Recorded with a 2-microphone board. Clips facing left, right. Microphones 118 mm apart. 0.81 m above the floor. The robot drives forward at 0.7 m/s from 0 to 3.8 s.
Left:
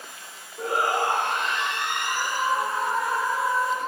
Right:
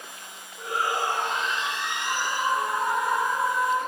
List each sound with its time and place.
0.6 s a shout: 45° left (ahead or behind), 1.3 m
1.9 s a scream: 20° right (ahead or behind), 6 m; by 3.8 s 15° right (ahead or behind), 7 m